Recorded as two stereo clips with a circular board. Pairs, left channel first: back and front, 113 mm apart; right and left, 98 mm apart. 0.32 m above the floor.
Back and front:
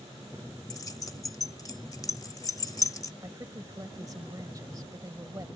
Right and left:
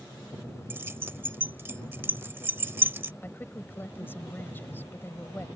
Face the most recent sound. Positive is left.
turn(degrees=-35)